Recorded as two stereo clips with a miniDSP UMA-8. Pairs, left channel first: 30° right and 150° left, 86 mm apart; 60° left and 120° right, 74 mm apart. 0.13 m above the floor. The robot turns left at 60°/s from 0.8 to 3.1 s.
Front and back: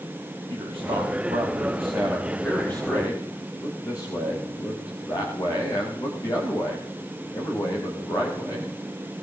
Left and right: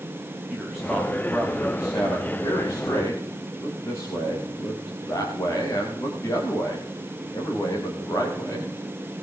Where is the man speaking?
150° left, 9.5 m; by 8.7 s 15° left, 9.5 m.